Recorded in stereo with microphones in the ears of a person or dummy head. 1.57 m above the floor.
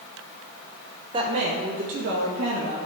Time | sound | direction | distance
1.1 | a woman speaking | 30° right (ahead or behind) | 0.7 m